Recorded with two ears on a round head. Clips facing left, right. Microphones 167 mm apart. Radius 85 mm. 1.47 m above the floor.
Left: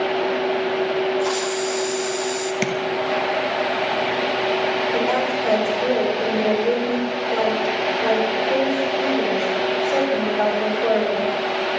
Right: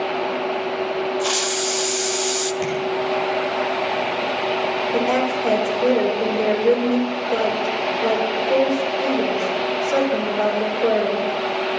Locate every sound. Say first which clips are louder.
1.2 s a hiss: left 2 dB; 35° right (ahead or behind), 0.7 m
2.6 s tapping: left 2 dB; 75° left (ahead or behind), 1.6 m
4.9 s a woman speaking: right 1 dB; 15° right (ahead or behind), 4.5 m